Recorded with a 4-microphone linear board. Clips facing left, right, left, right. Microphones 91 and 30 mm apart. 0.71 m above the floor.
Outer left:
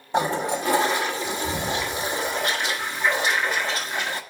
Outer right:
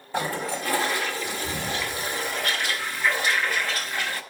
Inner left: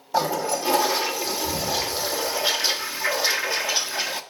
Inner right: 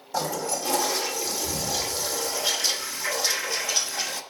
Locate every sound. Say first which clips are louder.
0.1 s a toilet flushing: outer left 5 dB, inner left 5 dB; 20° left (ahead or behind), 0.9 m